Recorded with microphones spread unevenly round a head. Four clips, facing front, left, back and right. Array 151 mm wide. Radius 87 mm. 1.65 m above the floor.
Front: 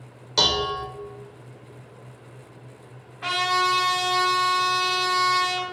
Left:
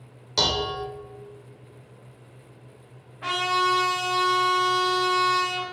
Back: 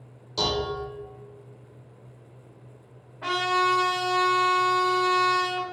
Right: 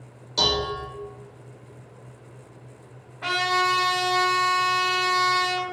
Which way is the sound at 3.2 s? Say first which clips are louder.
Even, front 1 dB; 170° right.